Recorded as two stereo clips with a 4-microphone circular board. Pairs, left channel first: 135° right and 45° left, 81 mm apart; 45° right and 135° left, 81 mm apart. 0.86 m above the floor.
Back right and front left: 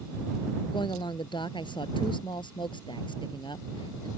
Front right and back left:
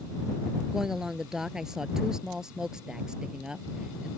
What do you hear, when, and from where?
0.7 s a woman speaking: 140° right; by 4.1 s 145° right